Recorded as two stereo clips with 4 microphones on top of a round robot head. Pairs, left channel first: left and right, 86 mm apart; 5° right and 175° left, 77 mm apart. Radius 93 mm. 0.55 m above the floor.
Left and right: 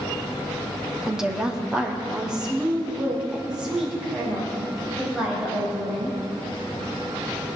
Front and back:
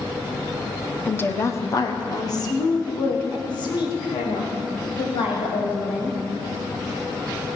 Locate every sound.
1.1 s a woman speaking: 15° right, 1.2 m; by 6.2 s 10° right, 5 m